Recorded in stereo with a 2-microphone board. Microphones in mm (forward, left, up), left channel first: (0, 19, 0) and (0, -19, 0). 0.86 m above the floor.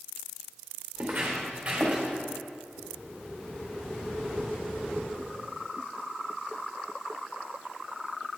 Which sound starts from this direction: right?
Footsteps, at 0.9 s.